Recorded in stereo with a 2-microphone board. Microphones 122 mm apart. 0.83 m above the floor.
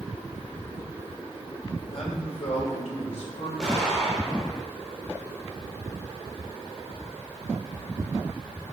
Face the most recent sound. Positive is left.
turn(degrees=5)  # may be behind; listen again after turning